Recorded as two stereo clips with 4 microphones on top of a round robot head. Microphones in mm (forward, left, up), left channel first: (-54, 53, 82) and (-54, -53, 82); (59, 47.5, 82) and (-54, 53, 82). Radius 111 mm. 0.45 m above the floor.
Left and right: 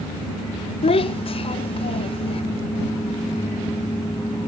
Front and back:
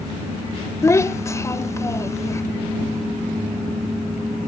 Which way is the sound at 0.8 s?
60° left.